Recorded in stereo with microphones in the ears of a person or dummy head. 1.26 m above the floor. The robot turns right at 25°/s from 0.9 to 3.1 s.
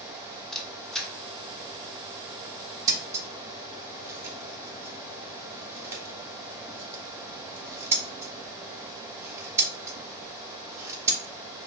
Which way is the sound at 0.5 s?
Centre (ahead or behind).